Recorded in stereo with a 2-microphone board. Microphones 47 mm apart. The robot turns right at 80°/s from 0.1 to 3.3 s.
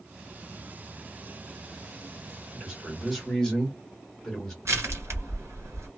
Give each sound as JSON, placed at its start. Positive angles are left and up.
{"t": 2.5, "sound": "a man speaking", "azimuth_deg": -40, "distance_m": 1.4}
{"t": 4.7, "sound": "crushing", "side_deg": -85, "distance_m": 1.6}